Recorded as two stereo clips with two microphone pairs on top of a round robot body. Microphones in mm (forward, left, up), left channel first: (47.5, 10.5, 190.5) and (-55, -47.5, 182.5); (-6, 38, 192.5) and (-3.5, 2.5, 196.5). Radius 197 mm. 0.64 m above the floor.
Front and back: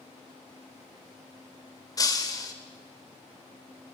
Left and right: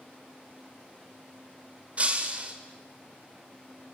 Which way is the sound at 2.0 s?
30° right.